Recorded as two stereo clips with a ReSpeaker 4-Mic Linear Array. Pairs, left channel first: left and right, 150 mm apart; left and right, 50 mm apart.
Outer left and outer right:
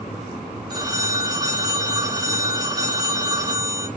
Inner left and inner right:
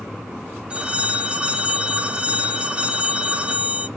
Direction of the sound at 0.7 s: 25° right (ahead or behind).